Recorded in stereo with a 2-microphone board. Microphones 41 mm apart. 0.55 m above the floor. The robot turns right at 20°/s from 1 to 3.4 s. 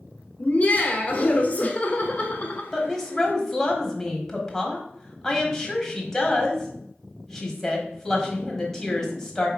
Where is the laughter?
95° left, 1.1 m; by 2.6 s 130° left, 1.1 m.